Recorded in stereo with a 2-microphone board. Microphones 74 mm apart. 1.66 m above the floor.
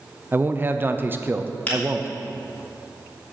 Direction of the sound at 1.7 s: 20° left (ahead or behind).